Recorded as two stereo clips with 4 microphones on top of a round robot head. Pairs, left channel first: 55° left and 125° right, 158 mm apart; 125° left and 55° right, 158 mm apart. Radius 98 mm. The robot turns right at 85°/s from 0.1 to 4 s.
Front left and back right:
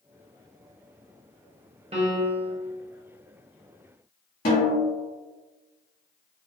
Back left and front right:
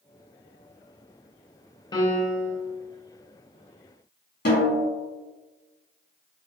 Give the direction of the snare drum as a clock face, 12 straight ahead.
9 o'clock.